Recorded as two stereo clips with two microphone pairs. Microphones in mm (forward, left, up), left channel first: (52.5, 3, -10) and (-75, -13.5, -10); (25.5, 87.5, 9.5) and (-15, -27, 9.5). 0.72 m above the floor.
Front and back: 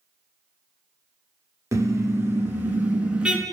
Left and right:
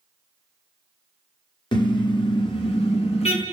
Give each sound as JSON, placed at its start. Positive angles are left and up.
{"t": 1.7, "sound": "a car horn", "azimuth_deg": 120, "distance_m": 5.0}